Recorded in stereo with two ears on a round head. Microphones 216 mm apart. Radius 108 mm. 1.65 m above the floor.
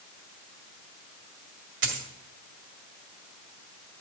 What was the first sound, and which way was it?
A dropped coin, 50° right (ahead or behind).